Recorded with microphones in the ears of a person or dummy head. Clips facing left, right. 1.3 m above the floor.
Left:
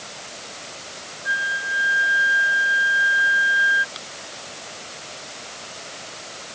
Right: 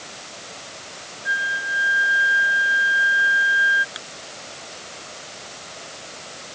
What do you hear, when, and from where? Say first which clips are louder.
1.2 s a flute: right 1 dB; centre (ahead or behind)
4.0 s a finger snap: even; 15° right (ahead or behind)